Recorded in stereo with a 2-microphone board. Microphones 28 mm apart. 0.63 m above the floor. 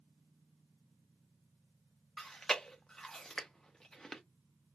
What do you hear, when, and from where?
2.2 s chewing: 15° left (ahead or behind), 0.8 m